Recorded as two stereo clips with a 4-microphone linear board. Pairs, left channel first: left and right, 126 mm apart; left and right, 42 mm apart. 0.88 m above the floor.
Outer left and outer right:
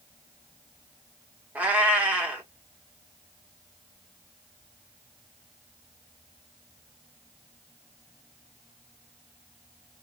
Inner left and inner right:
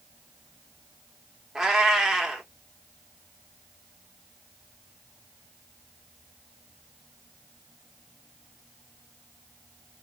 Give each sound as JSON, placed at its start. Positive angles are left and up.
{"t": 1.6, "sound": "a cat meowing", "side_deg": -10, "distance_m": 1.1}